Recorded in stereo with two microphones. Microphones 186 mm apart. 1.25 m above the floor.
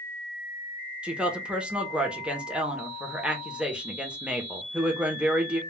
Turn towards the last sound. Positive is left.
turn(degrees=-5)  # may be behind; listen again after turning